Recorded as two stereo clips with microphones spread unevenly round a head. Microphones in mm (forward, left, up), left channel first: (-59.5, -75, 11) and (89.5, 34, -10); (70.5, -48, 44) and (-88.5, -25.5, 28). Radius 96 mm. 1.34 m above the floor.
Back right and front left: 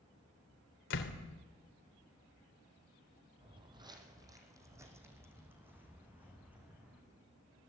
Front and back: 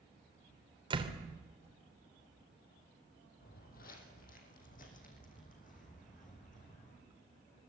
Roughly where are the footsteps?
Ahead right.